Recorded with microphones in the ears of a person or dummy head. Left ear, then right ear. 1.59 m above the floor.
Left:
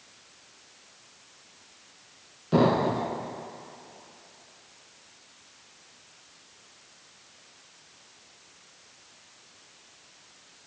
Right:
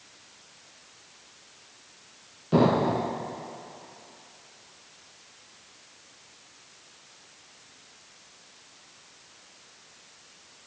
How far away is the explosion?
About 0.7 m.